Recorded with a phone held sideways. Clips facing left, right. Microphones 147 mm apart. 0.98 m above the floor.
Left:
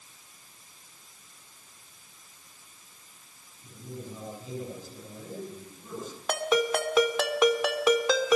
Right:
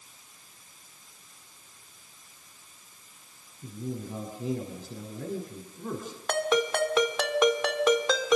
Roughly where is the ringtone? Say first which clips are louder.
Even; centre.